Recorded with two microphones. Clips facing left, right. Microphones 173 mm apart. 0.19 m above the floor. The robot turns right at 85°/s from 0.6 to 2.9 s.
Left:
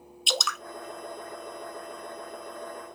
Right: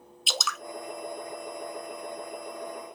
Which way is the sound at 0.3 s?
Centre (ahead or behind).